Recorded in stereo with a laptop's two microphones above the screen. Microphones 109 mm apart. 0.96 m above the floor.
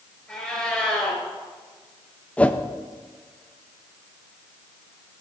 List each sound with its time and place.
0.3 s a cat meowing: 10° left (ahead or behind), 5.5 m
2.4 s a whoosh: 10° left (ahead or behind), 0.5 m